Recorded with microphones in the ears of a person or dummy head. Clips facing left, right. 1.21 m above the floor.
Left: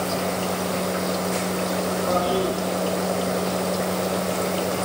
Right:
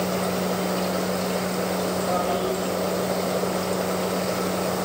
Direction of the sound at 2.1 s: 70° left (ahead or behind).